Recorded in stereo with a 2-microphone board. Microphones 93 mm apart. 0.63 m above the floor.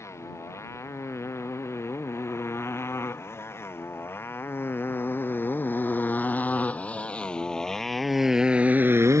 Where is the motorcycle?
30° left (ahead or behind); by 9.2 s 35° right (ahead or behind).